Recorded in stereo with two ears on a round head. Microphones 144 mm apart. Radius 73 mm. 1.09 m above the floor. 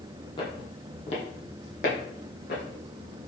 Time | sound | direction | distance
0.4 | footsteps | 30° left (ahead or behind) | 1.4 m